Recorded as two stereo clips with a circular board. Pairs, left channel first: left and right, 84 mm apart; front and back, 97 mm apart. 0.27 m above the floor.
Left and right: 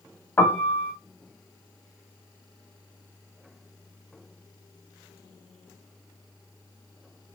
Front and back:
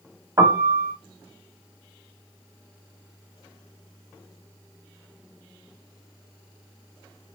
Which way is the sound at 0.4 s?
145° left.